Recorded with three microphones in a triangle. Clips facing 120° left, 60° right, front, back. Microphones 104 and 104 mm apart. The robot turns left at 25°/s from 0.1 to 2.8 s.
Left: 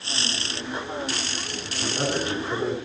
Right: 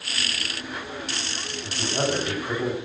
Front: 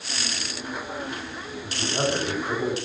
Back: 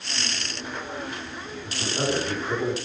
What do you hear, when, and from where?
1.6 s a man speaking: 45° right, 3 m; by 2.8 s 75° right, 3 m